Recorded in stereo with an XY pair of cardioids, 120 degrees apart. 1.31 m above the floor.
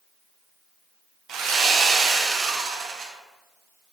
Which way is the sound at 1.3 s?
60° right.